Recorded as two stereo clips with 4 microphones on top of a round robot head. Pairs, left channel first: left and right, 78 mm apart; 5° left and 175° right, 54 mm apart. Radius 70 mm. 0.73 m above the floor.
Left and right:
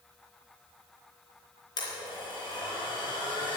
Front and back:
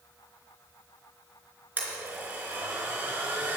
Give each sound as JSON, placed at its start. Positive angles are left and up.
{"t": 1.8, "sound": "a blender", "azimuth_deg": 130, "distance_m": 4.0}